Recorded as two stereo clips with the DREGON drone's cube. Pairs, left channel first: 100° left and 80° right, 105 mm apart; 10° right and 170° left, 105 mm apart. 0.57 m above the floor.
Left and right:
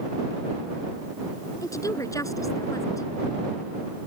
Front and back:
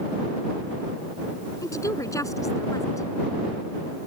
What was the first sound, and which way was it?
A woman speaking, 45° left.